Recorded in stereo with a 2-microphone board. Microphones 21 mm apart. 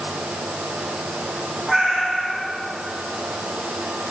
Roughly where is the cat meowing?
Centre.